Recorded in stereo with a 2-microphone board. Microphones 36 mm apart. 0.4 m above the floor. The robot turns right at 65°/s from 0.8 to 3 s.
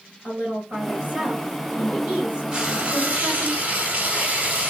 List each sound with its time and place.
0.2 s a woman speaking: 130° right, 1.9 m; by 3.5 s 15° left, 1.9 m
2.5 s frying: 145° right, 1.1 m; by 4.7 s 115° right, 1.1 m